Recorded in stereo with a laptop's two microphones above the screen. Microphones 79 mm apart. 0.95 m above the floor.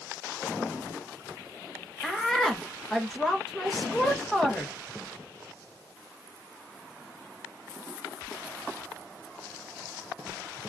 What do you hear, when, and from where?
2.0 s a woman speaking: 5° left (ahead or behind), 1.1 m